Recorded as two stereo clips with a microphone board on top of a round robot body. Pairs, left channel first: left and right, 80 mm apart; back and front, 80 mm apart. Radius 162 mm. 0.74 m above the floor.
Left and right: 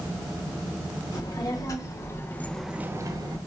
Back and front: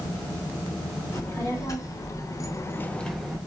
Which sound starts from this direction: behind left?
A child speaking, at 1.1 s.